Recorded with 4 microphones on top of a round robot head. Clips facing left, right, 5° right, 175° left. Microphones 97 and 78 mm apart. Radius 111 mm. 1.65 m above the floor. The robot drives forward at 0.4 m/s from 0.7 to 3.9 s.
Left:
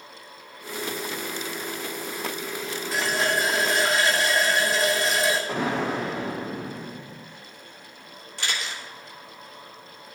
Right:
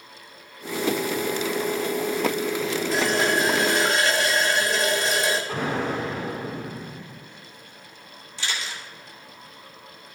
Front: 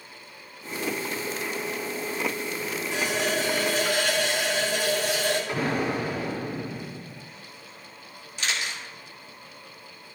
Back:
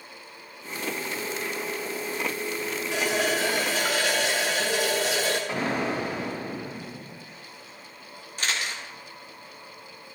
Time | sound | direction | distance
2.9 | a running tap | straight behind | 1.2 m
5.5 | an explosion | 110° left | 4.5 m
8.4 | a camera shutter | 125° left | 2.5 m